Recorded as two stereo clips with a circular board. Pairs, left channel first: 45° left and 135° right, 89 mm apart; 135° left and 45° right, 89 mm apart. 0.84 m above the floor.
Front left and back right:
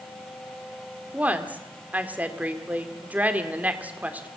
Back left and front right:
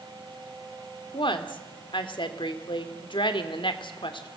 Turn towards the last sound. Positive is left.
turn(degrees=155)